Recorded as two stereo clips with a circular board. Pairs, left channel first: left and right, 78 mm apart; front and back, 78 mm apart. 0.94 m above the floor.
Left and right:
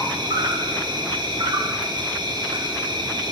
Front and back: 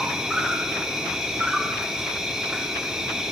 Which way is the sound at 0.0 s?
100° right.